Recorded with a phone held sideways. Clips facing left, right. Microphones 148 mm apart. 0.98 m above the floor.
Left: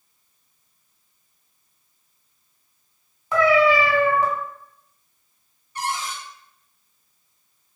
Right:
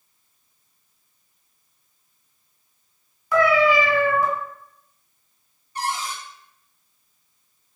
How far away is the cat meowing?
About 1.4 m.